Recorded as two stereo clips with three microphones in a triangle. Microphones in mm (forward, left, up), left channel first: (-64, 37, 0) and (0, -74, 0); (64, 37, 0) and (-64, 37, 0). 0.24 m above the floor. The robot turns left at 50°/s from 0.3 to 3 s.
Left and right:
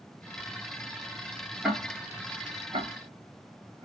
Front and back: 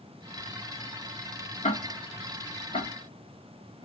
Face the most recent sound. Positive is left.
turn(degrees=-40)